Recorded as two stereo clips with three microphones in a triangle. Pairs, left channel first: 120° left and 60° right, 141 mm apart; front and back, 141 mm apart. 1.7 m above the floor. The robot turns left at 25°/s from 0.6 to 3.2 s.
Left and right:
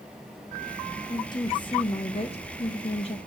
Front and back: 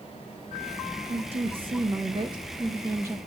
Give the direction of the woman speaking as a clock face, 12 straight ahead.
6 o'clock.